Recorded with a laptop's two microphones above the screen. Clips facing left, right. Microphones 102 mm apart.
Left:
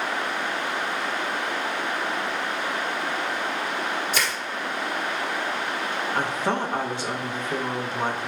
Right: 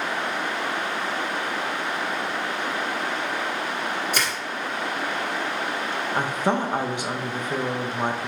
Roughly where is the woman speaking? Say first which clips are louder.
Right 3 dB; centre.